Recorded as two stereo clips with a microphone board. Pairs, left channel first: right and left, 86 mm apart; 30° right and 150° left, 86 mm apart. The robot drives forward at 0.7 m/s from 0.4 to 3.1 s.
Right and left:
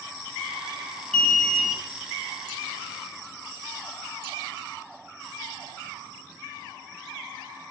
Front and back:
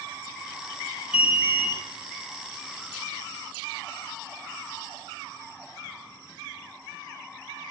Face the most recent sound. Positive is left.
turn(degrees=-175)